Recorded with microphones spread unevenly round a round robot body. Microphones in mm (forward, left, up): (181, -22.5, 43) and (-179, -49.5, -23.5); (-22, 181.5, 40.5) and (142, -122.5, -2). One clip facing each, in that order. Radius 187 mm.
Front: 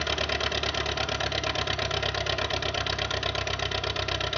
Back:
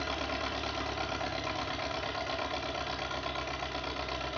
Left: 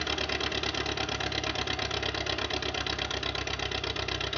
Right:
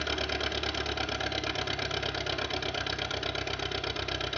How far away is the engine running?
About 0.7 m.